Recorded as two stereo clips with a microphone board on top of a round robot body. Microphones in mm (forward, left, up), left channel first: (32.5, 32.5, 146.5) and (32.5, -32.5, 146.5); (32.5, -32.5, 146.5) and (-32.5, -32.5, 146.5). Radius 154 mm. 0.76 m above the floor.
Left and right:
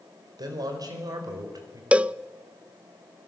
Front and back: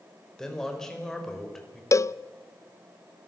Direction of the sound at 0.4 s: 80° right.